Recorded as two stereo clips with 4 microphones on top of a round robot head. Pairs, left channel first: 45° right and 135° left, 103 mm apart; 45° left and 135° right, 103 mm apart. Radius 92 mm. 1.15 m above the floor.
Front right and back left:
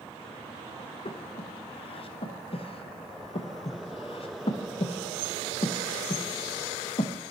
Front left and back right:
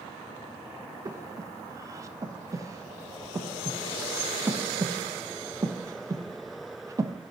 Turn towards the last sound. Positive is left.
turn(degrees=-75)